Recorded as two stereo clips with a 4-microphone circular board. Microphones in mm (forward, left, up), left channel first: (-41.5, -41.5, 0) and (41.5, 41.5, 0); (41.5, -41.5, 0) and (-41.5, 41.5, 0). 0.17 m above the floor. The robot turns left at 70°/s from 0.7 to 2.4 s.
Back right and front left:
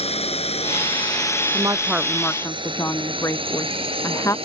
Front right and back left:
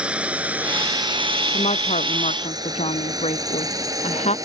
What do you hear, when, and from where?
0.0 s a drone: 145° right; by 4.5 s 75° left
1.5 s a woman speaking: 10° right; by 4.3 s 70° right